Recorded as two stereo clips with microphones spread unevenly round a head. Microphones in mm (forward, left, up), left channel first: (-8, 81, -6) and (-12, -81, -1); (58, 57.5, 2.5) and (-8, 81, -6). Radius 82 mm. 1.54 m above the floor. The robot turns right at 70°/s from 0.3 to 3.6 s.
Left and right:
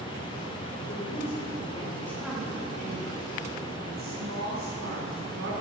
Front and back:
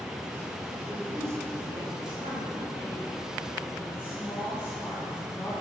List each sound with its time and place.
0.9 s a woman speaking: 85° left, 5.5 m; by 5.5 s 85° right, 5.5 m